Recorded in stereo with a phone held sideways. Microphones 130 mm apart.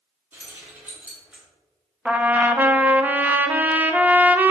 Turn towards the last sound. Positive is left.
turn(degrees=-15)  # may be behind; listen again after turning